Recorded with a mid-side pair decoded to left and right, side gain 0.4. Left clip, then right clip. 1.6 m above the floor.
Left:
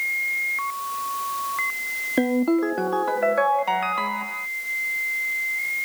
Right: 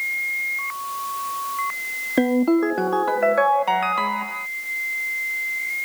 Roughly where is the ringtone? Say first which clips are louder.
Right 3 dB; ahead.